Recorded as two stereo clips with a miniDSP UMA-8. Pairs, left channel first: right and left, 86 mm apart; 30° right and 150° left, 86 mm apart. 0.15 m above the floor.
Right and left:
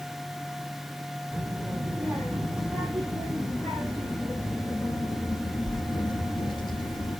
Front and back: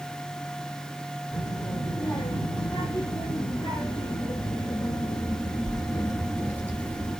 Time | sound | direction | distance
1.3 | a child speaking | 5° left | 4 m